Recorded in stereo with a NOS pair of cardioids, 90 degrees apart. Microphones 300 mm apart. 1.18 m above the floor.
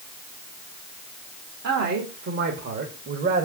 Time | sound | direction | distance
1.6 | a man speaking | 55° right | 2.5 m